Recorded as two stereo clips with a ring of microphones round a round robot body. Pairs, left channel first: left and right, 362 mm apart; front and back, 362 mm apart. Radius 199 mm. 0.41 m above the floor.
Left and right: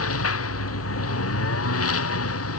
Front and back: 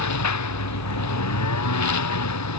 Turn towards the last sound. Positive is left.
turn(degrees=40)